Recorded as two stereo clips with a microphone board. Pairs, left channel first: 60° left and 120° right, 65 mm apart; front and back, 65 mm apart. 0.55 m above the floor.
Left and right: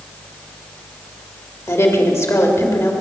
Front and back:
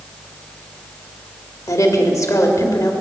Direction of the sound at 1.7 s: 25° left.